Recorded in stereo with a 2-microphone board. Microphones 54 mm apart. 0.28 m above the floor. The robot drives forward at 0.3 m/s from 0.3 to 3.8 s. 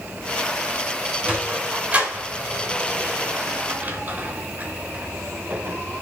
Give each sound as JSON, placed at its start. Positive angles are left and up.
{"t": 1.2, "sound": "a sliding door", "side_deg": -20, "distance_m": 1.9}